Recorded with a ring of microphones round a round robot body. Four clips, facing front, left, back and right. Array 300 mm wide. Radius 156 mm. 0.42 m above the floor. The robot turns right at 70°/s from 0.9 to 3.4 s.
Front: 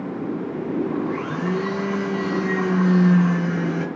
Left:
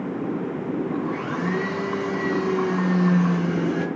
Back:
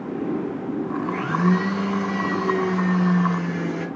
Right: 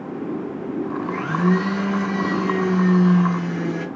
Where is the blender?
135° right, 4.5 m; by 3.9 s 30° left, 4.5 m.